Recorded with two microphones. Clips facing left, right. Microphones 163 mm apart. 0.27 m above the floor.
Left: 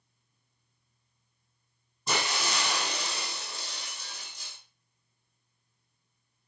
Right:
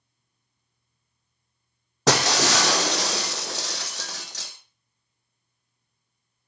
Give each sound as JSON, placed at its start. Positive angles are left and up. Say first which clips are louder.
{"t": 2.1, "sound": "breaking glass", "louder": "right 11 dB", "side_deg": -85, "distance_m": 1.4}